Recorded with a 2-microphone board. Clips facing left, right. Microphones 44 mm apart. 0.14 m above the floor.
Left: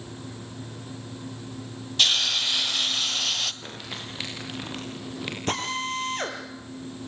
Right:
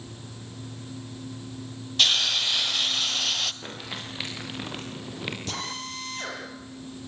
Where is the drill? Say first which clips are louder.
Left 6 dB; 45° left (ahead or behind), 4.5 m.